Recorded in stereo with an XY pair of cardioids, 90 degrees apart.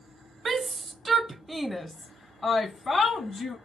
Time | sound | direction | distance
0.5 | a shout | 45° right | 1.0 m